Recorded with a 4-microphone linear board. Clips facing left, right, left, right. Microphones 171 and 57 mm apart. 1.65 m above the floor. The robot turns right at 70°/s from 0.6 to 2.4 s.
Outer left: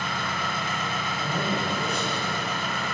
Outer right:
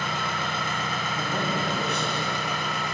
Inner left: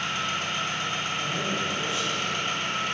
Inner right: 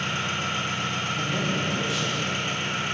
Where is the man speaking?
130° right, 0.6 m; by 2.4 s 45° right, 0.6 m.